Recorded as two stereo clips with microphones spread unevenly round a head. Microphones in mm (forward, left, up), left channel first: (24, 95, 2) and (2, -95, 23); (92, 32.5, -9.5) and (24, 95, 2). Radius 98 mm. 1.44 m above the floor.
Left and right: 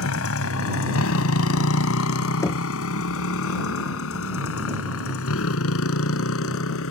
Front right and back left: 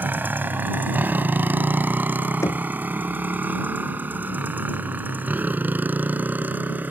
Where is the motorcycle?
70° left.